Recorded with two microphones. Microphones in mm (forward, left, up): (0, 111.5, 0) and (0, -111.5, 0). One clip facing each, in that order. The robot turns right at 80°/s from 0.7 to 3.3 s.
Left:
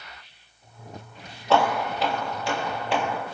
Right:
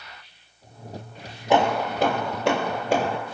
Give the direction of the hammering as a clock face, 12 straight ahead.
5 o'clock.